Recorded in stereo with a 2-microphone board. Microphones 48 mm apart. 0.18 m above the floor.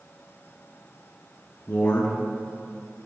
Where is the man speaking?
50° left (ahead or behind), 2 m.